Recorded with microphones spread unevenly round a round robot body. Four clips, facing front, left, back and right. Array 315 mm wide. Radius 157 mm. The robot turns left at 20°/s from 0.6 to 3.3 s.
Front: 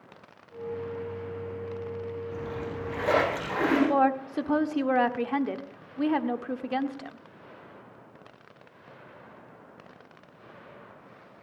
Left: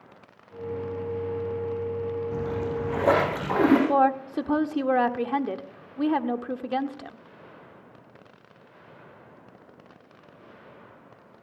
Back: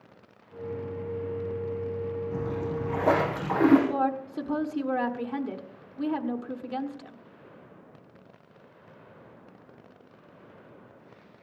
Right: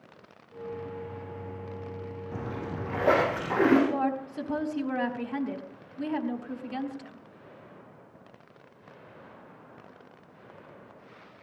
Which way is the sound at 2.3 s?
135° left.